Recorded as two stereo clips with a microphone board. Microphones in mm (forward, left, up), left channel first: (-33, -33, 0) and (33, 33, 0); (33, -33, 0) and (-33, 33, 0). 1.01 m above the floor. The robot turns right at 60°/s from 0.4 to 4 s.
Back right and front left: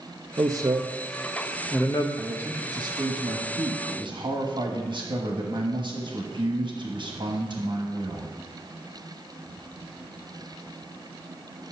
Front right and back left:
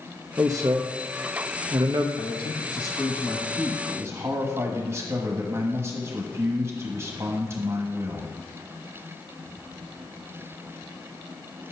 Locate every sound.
0.4 s a man speaking: 80° left, 0.6 m; by 2.1 s straight behind, 0.6 m
2.2 s a man speaking: 35° right, 1.1 m; by 8.4 s 75° left, 1.1 m